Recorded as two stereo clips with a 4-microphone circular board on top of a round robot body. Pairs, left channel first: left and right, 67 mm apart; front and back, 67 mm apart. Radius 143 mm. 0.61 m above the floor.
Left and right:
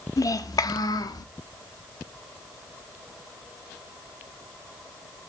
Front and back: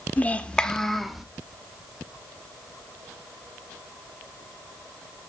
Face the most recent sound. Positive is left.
turn(degrees=95)